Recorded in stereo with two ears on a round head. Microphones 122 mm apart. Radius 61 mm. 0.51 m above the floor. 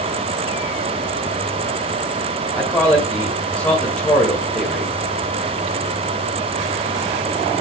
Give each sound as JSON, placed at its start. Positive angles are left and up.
{"t": 2.5, "sound": "a man speaking", "side_deg": 10, "distance_m": 1.9}